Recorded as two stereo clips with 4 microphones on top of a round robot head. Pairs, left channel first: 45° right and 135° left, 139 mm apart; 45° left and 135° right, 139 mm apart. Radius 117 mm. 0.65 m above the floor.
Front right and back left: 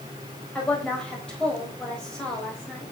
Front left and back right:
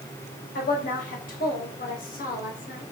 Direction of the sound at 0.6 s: 35° left.